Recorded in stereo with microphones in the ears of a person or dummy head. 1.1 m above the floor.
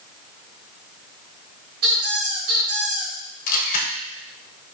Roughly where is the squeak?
Right.